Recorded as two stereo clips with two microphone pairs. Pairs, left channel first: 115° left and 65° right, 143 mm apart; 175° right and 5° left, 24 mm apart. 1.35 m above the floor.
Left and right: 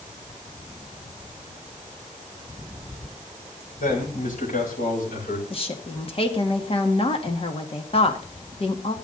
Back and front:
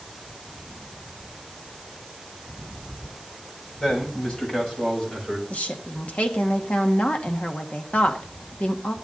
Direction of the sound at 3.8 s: 135° left.